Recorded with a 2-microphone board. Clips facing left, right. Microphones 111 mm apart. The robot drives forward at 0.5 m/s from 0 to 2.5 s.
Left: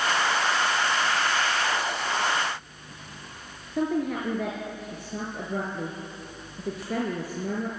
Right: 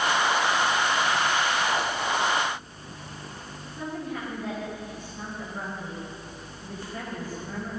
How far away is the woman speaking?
About 4 m.